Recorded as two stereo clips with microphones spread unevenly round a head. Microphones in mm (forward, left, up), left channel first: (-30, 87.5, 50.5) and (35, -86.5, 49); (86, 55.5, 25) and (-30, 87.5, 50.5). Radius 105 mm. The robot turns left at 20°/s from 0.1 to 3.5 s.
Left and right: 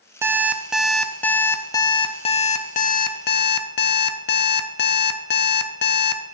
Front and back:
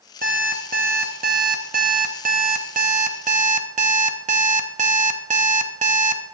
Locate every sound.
0.2 s an alarm clock: 145° right, 0.5 m; by 6.2 s 150° left, 0.5 m